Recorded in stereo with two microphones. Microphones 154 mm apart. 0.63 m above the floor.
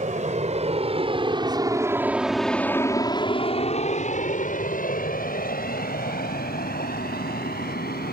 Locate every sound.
0.0 s an aircraft: 50° right (ahead or behind); by 8.1 s 75° left (ahead or behind)